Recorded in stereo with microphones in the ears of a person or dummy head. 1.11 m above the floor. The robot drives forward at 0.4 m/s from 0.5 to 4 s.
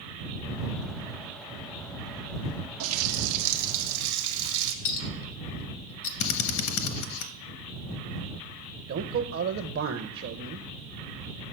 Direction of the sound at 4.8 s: 70° left (ahead or behind).